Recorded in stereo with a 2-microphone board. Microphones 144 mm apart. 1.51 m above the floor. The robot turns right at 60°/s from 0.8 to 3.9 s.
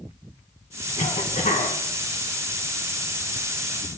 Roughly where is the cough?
Ahead left.